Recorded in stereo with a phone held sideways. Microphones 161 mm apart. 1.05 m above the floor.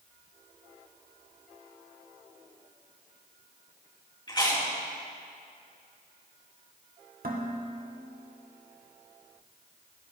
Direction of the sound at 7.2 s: 70° right (ahead or behind).